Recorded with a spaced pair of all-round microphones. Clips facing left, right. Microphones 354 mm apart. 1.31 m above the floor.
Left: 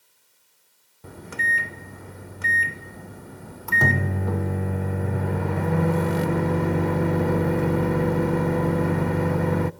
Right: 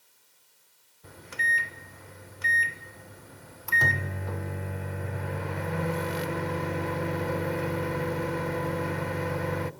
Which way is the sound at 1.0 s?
65° left (ahead or behind).